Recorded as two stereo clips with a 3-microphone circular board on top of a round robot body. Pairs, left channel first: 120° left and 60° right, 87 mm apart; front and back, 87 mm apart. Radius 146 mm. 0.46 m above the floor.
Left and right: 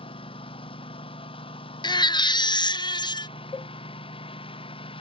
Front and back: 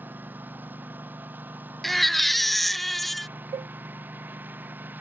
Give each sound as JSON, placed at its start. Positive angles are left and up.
{"t": 0.0, "sound": "a lawn mower", "azimuth_deg": 110}
{"t": 1.8, "sound": "a baby crying", "azimuth_deg": 90}
{"t": 3.5, "sound": "a cowbell", "azimuth_deg": 165}